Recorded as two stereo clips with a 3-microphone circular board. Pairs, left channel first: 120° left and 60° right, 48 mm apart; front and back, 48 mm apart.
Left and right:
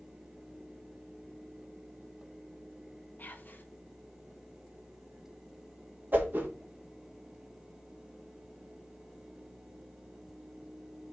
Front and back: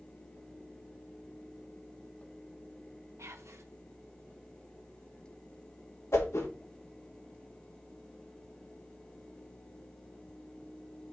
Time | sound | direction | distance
3.2 | whispering | 170° left | 1.1 m
6.1 | a whoosh | 15° right | 1.6 m